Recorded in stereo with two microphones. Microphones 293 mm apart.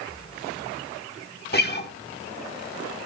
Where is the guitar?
35° left (ahead or behind), 1.2 m.